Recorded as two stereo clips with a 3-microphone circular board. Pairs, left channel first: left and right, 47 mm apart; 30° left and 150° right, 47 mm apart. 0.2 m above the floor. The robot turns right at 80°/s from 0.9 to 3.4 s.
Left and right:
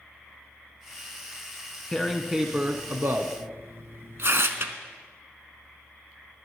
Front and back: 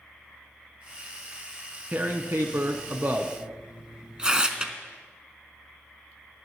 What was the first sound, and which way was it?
Tearing paper, 160° left.